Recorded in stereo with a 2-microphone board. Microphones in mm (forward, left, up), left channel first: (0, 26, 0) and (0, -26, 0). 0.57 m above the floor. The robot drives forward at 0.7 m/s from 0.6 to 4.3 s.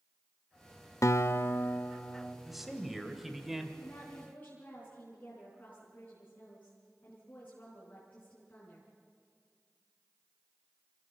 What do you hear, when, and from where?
1.0 s a guitar: 65° left (ahead or behind), 0.5 m; by 2.4 s 20° left (ahead or behind), 1.2 m
2.5 s a man speaking: centre (ahead or behind), 2.5 m; by 3.7 s 5° right (ahead or behind), 1.7 m
3.8 s a woman speaking: 30° left (ahead or behind), 6 m